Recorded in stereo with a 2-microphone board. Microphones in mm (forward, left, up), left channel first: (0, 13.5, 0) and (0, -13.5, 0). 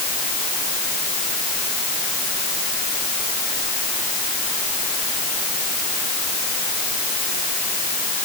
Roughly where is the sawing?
I don't hear sawing.